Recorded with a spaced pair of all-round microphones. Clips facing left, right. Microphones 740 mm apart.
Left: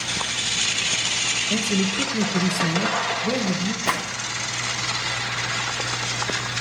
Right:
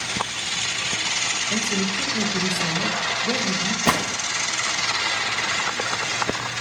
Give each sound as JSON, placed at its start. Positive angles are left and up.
{"t": 1.5, "sound": "a man speaking", "side_deg": 60, "distance_m": 1.7}
{"t": 3.9, "sound": "a gunshot", "side_deg": -70, "distance_m": 0.6}